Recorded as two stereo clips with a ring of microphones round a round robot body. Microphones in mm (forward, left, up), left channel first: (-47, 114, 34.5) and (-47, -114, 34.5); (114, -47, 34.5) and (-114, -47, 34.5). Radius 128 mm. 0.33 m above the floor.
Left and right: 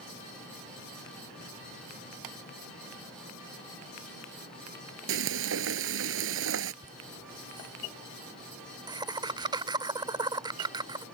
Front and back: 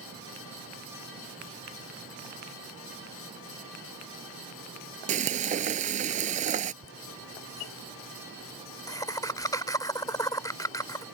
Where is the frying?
120° right.